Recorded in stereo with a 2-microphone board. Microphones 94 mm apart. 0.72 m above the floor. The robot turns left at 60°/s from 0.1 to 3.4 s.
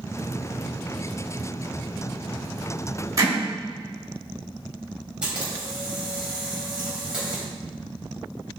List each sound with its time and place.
3.2 s hammering: 35° right (ahead or behind), 3 m; by 3.3 s 45° right (ahead or behind), 3 m
5.2 s a camera shutter: 10° right (ahead or behind), 3.5 m